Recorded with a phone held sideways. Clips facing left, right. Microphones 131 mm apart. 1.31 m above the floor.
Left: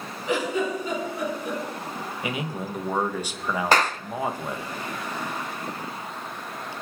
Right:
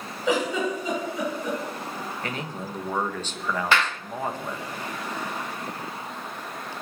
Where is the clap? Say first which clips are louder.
Left 4 dB; 40° left (ahead or behind), 0.5 m.